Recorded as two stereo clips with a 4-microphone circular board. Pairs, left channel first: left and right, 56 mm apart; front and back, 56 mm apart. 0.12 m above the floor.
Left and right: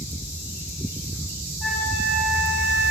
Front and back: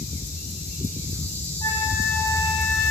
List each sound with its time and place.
1.6 s a flute: 5° left, 10 m